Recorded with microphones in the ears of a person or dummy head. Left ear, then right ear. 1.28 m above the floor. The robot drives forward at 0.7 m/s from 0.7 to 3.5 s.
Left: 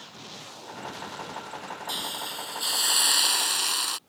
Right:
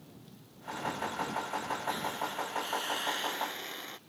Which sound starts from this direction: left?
A hiss, at 1.9 s.